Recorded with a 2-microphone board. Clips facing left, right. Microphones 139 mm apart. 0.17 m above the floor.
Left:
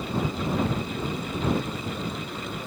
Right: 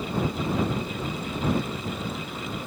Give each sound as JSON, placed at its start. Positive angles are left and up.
{"t": 0.6, "sound": "a cupboard door", "side_deg": 80}